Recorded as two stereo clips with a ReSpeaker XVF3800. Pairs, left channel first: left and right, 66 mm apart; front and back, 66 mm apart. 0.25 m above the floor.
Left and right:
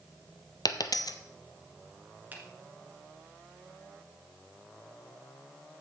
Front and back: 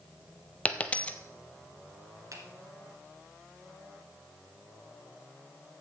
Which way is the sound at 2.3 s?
155° right.